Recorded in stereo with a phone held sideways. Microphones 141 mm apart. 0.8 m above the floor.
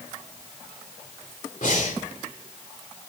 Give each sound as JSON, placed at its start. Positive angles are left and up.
{"t": 1.6, "sound": "breathing", "side_deg": 70, "distance_m": 3.0}